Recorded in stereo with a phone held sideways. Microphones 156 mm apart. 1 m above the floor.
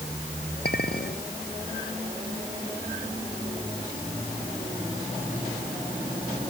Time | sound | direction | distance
0.7 | a clink | 80° left | ?